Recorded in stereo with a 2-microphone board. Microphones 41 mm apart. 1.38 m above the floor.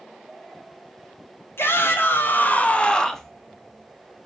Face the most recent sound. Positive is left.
turn(degrees=5)  # may be behind; listen again after turning